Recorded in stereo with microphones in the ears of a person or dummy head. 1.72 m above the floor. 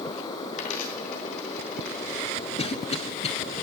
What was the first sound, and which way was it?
A dropped coin, 55° left (ahead or behind).